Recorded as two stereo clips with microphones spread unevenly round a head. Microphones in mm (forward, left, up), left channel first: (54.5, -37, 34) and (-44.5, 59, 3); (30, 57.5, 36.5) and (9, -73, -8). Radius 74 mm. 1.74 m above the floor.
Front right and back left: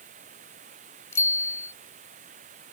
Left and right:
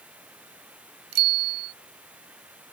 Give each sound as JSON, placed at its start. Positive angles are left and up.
{"t": 0.0, "sound": "running water", "azimuth_deg": 180}
{"t": 1.1, "sound": "a bicycle bell", "azimuth_deg": -115}